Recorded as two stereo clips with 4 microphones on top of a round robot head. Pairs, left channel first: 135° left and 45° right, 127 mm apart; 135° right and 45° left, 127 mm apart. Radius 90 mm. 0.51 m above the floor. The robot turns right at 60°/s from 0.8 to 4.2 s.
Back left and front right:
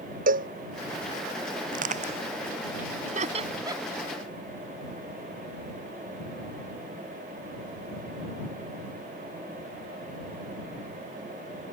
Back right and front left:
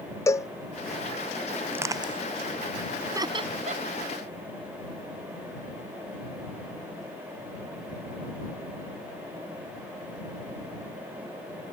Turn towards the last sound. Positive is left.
turn(degrees=45)